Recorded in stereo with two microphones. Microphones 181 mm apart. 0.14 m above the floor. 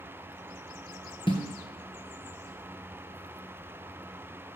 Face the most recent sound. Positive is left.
turn(degrees=30)  # may be behind; listen again after turning